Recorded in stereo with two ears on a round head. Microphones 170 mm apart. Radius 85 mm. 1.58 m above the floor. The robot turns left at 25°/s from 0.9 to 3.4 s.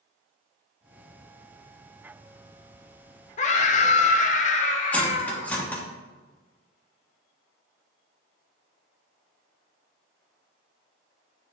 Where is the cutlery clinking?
10° left (ahead or behind), 1.2 m.